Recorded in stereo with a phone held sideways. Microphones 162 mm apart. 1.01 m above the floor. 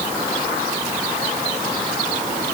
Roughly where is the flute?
No flute in this recording.